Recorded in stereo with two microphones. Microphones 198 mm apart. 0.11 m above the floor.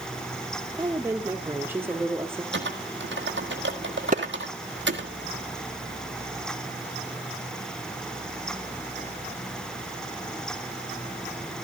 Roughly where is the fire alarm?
I don't hear a fire alarm.